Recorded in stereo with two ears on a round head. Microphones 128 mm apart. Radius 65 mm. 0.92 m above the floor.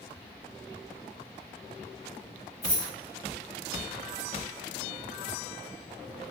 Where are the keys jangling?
25° left (ahead or behind), 1.9 m.